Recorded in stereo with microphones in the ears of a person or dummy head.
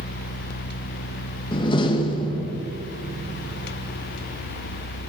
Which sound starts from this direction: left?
A door slam, at 1.5 s.